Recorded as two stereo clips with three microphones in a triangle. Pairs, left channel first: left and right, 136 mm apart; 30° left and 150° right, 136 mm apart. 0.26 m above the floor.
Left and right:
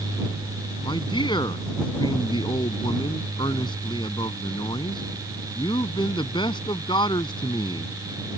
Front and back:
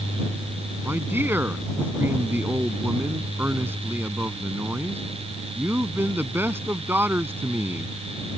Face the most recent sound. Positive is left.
turn(degrees=140)